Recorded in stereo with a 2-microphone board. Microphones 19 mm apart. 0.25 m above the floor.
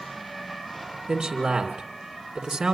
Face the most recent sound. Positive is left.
turn(degrees=-55)  # may be behind; listen again after turning